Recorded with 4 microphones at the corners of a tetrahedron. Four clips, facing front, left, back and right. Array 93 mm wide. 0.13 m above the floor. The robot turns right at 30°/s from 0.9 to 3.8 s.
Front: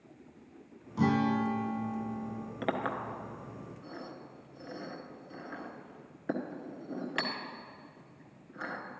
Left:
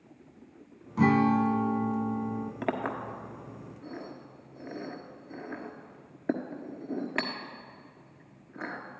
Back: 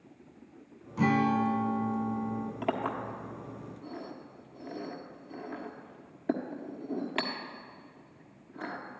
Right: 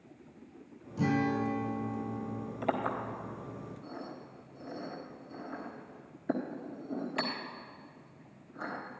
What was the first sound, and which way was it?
A guitar, 70° left.